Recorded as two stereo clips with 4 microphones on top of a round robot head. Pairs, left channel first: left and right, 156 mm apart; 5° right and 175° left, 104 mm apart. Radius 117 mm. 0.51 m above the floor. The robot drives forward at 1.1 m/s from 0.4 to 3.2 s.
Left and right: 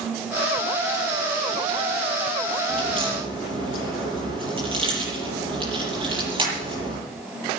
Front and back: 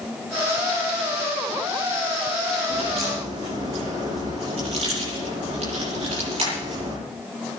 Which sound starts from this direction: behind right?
A crack, at 2.7 s.